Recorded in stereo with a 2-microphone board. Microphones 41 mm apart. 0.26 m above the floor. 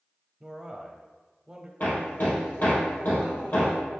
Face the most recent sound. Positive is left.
turn(degrees=55)  # may be behind; listen again after turning